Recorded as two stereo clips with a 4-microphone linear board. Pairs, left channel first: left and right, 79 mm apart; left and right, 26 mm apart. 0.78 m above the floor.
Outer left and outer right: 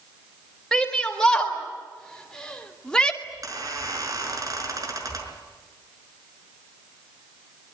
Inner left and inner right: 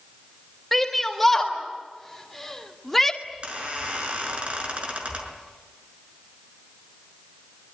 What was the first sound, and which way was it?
A shout, 5° left (ahead or behind).